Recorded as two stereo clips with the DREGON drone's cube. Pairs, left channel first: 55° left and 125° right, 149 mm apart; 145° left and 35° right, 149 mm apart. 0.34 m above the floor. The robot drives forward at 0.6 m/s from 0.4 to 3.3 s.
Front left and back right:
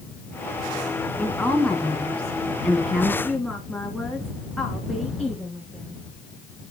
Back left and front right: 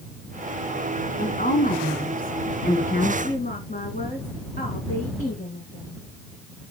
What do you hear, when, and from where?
1.2 s a woman speaking: 130° left, 3 m; by 3.1 s 145° left, 4 m
3.2 s a woman speaking: 145° left, 3.5 m